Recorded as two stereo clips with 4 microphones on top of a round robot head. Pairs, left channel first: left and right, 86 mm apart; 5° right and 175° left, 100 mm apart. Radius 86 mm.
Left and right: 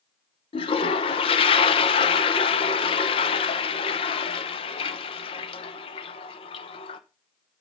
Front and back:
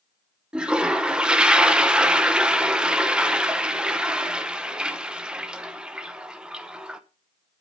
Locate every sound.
0.5 s a toilet flushing: 95° left, 0.8 m